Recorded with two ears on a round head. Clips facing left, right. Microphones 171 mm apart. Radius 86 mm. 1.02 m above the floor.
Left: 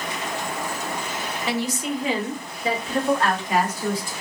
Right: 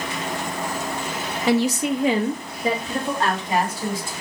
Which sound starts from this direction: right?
A woman speaking, at 1.5 s.